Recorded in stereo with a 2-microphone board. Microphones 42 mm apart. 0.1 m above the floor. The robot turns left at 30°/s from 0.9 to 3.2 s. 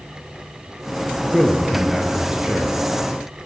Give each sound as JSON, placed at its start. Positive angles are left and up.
{"t": 1.3, "sound": "a man speaking", "azimuth_deg": 0, "distance_m": 1.4}